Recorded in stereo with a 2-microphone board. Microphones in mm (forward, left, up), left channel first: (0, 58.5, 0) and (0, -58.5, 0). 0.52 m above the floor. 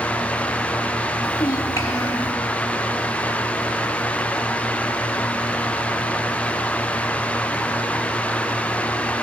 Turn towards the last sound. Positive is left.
turn(degrees=25)  # may be behind; listen again after turning